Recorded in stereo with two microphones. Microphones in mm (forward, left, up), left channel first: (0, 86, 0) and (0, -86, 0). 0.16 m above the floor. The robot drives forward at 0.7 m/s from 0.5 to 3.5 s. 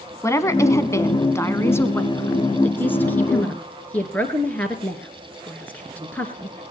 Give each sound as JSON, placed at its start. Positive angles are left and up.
{"t": 0.2, "sound": "a woman speaking", "side_deg": 20, "distance_m": 1.2}